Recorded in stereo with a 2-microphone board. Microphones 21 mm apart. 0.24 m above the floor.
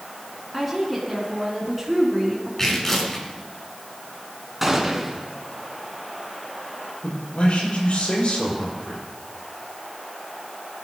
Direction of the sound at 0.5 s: 5° right (ahead or behind).